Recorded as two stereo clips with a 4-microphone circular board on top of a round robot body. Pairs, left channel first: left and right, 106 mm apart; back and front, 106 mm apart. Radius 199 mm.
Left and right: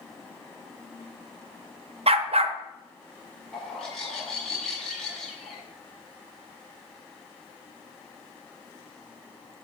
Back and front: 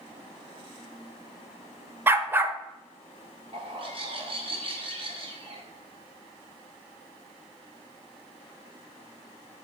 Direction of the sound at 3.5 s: 5° left.